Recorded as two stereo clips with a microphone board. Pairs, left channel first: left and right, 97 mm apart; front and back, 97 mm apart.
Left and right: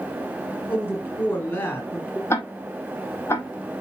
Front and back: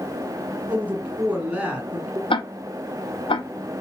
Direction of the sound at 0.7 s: 125° left.